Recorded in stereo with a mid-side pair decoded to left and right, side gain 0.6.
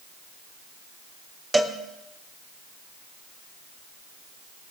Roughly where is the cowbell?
Ahead.